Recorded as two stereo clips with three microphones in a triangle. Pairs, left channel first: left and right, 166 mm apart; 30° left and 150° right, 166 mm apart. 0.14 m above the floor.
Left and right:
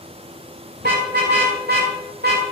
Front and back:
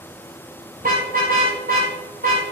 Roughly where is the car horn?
Behind right.